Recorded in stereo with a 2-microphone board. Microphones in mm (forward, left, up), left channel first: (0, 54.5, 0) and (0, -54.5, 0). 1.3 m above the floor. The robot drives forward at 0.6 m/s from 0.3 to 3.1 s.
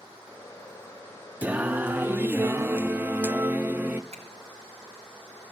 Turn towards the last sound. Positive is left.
turn(degrees=-75)  # may be behind; listen again after turning